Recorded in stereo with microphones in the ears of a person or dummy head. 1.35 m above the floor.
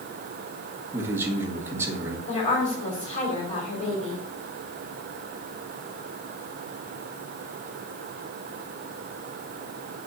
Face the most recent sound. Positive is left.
turn(degrees=40)  # may be behind; listen again after turning